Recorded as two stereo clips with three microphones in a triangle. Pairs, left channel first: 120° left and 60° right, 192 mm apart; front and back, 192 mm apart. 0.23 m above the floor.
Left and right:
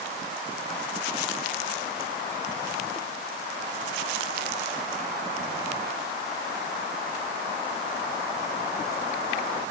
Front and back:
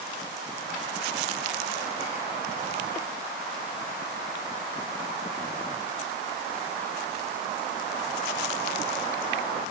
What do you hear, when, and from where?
Only background noise.